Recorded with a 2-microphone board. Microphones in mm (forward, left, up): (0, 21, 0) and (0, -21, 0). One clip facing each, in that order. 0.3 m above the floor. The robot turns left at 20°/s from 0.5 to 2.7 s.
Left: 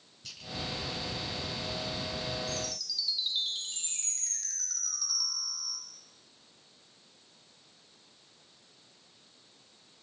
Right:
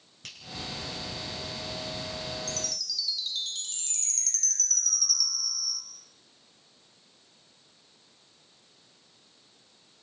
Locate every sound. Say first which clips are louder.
0.2 s a finger snap: right 3 dB; 65° right (ahead or behind), 4.5 m
2.5 s a chime: even; 15° left (ahead or behind), 2.5 m; by 5.8 s 20° left (ahead or behind), 2.5 m